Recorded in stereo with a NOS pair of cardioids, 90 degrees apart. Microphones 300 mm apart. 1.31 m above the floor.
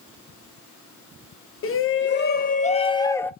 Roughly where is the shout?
Ahead left.